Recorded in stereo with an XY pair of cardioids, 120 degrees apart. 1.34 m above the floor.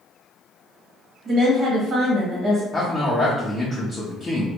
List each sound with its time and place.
1.2 s a woman speaking: 55° right, 1.1 m
2.7 s a man speaking: 20° left, 0.7 m